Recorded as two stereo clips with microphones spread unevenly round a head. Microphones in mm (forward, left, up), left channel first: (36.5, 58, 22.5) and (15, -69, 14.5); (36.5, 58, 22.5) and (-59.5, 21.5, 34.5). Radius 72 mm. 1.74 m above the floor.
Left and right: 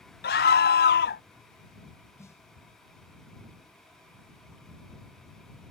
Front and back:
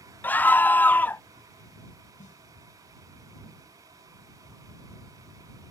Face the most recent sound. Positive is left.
turn(degrees=10)